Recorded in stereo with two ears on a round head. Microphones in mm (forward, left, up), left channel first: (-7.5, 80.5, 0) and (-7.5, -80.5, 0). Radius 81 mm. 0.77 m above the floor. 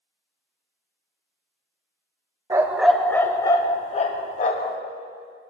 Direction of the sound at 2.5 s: 20° right (ahead or behind).